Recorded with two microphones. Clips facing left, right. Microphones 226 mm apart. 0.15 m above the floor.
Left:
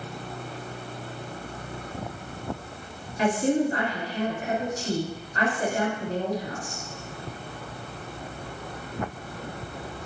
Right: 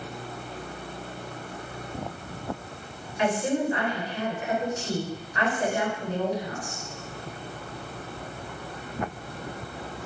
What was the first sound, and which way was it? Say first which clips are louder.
A woman speaking: left 3 dB; 40° left (ahead or behind).